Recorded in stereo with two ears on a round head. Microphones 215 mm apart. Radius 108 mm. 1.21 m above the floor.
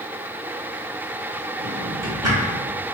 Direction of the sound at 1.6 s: 15° right (ahead or behind).